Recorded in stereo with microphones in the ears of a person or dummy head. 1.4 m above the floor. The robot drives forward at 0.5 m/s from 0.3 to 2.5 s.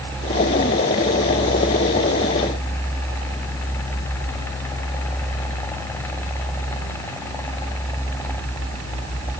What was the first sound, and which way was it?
Only background noise.